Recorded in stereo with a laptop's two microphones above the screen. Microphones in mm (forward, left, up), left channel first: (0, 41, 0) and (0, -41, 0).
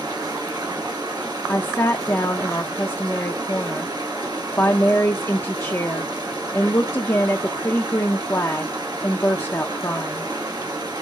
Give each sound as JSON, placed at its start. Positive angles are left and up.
{"t": 0.0, "sound": "running water", "side_deg": -55, "distance_m": 1.8}
{"t": 1.5, "sound": "a woman speaking", "side_deg": 35, "distance_m": 0.6}